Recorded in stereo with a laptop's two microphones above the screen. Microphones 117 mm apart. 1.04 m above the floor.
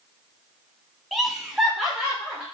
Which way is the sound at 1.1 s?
Centre (ahead or behind).